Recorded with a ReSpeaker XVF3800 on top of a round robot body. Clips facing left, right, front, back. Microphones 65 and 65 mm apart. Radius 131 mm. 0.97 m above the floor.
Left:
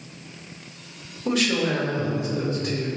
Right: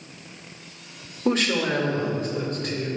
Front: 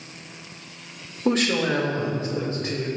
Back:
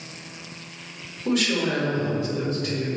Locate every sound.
1.2 s a woman speaking: 40° right, 2 m; by 2.9 s 60° right, 3.5 m